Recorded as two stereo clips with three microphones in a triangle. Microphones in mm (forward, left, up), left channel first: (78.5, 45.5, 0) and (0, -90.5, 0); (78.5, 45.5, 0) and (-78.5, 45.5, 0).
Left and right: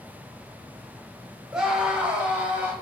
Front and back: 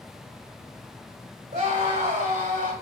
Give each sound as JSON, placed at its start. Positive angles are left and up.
{"t": 1.5, "sound": "a scream", "azimuth_deg": 155, "distance_m": 2.5}